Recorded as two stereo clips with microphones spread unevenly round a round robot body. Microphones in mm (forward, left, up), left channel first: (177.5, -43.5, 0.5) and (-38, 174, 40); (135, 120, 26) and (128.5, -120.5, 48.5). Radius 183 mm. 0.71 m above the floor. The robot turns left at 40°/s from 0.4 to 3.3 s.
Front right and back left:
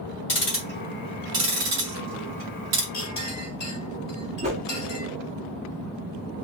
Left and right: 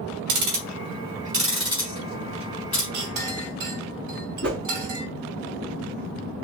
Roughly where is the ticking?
Right.